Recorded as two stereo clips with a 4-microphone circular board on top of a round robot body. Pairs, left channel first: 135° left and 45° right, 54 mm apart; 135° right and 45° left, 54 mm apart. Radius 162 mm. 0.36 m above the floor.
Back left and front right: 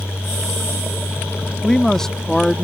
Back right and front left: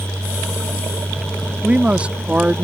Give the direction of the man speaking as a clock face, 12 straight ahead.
10 o'clock.